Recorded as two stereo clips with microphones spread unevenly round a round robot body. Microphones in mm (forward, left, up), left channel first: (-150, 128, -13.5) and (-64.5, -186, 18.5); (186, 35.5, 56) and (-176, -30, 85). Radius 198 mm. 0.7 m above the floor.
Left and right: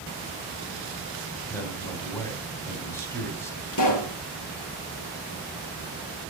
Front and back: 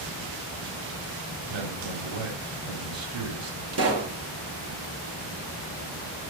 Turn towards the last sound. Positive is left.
turn(degrees=140)